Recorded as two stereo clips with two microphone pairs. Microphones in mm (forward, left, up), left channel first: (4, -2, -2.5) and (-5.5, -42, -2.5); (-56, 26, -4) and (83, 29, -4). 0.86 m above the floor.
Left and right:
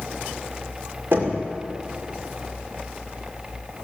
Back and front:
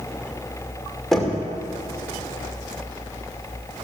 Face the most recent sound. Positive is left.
turn(degrees=-90)